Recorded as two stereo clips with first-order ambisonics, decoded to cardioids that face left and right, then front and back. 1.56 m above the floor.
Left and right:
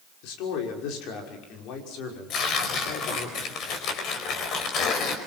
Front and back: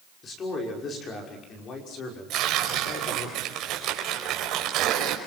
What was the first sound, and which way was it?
A man speaking, 65° left.